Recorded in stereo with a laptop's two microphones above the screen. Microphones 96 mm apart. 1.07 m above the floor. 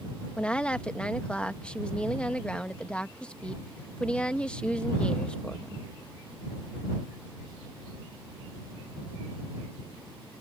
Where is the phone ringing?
No phone ringing in this recording.